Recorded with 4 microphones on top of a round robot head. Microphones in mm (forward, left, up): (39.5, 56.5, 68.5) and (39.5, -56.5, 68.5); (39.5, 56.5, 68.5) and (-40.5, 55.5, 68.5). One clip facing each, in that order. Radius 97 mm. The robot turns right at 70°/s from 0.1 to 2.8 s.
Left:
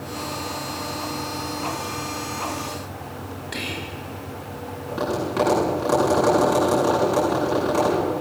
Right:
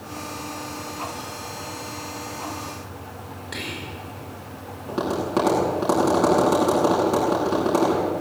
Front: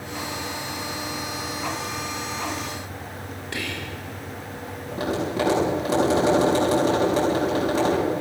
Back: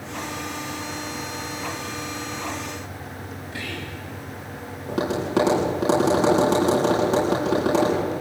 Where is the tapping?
155° right, 9.5 m.